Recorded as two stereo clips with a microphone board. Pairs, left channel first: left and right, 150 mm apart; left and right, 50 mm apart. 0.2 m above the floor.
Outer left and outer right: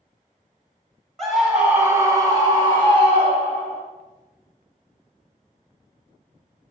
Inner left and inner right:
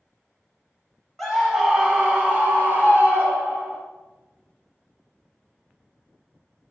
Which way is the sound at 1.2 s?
5° left (ahead or behind).